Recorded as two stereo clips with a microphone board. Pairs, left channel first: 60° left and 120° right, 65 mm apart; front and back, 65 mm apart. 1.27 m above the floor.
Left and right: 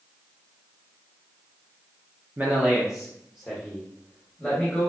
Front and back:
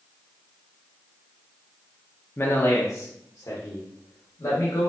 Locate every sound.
2.4 s a man speaking: 55° right, 0.7 m; by 4.9 s 25° right, 1.8 m